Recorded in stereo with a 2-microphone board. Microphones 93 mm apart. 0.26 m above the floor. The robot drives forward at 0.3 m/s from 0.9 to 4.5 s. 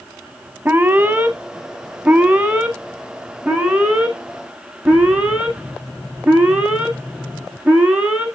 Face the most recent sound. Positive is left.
turn(degrees=-10)  # may be behind; listen again after turning